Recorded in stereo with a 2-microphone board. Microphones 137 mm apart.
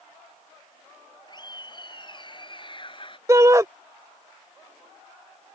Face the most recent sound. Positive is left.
turn(degrees=-25)  # may be behind; listen again after turning